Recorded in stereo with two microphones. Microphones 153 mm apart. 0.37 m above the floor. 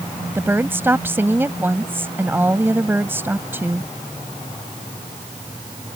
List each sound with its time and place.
0.3 s a woman speaking: 15° right (ahead or behind)